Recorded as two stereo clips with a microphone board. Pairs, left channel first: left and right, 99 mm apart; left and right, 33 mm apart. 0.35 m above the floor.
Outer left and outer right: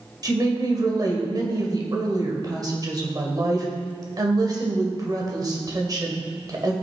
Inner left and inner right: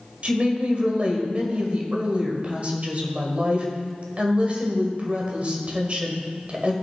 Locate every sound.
0.2 s a woman speaking: 40° right (ahead or behind), 1.7 m